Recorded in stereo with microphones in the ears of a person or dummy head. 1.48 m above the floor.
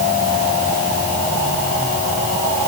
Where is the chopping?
No chopping in this recording.